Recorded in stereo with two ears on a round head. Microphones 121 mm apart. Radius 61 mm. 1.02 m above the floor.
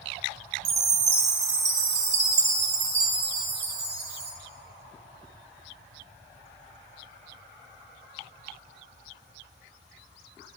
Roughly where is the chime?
Right.